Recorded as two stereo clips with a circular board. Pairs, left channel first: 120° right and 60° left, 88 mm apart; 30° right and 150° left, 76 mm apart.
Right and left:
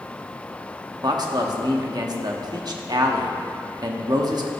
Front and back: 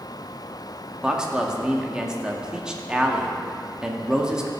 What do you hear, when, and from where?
1.0 s a man speaking: 70° left, 1.1 m